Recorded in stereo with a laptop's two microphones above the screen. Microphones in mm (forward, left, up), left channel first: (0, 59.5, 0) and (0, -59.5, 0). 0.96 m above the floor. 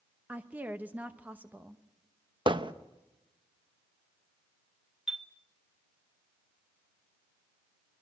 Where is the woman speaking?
15° right (ahead or behind), 1.0 m.